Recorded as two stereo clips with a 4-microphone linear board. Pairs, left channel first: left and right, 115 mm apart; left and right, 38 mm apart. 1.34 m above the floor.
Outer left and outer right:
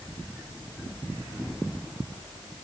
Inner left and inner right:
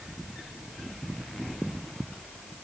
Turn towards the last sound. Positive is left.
No sound to turn to.